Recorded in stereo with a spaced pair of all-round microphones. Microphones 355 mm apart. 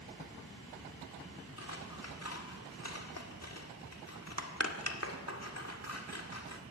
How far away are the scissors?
About 1.7 m.